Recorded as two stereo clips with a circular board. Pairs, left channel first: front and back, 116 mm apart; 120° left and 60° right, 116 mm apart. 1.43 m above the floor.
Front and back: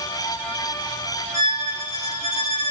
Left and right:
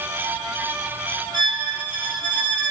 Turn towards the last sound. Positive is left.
turn(degrees=-115)